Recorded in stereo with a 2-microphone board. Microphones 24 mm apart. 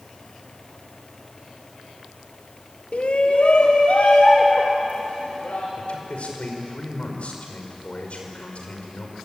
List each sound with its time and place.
2.9 s a shout: 70° left (ahead or behind), 1.6 m; by 5.7 s 80° left, 5.5 m
5.8 s a man speaking: 65° left (ahead or behind), 5.5 m